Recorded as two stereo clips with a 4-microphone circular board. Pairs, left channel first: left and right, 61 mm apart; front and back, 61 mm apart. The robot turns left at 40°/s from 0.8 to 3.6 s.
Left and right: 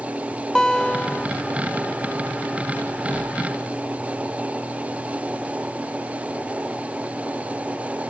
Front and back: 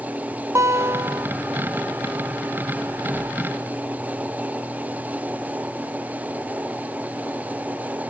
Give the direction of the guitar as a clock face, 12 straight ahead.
6 o'clock.